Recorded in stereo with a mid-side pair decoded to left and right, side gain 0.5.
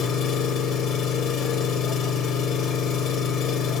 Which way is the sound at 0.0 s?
65° left.